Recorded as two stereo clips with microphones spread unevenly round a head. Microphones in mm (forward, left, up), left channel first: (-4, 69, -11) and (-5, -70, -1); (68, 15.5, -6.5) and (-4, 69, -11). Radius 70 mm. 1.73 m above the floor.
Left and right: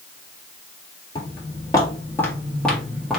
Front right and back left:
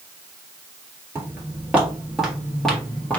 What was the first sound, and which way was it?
Footsteps, 110° left.